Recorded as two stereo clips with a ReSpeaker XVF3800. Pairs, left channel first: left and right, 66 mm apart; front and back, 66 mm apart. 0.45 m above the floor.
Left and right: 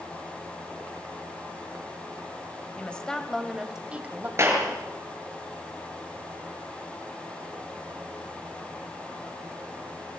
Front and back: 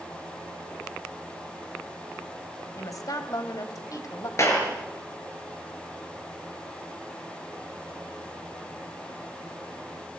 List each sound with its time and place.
2.8 s a woman speaking: 20° left, 2 m; by 4.3 s 30° right, 2.5 m
4.4 s a clap: 45° right, 5.5 m